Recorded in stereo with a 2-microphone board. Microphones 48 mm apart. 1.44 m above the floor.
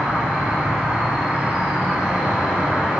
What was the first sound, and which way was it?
An insect, 15° right (ahead or behind).